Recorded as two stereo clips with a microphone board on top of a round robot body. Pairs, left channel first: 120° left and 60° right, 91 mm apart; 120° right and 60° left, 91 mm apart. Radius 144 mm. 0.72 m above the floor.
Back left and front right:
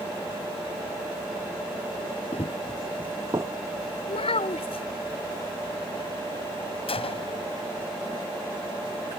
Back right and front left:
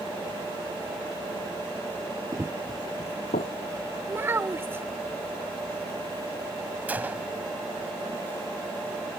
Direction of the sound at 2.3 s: 110° left.